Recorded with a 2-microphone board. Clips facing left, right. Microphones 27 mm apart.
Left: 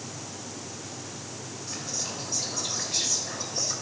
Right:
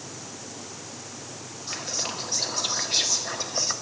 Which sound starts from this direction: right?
Whispering, at 1.7 s.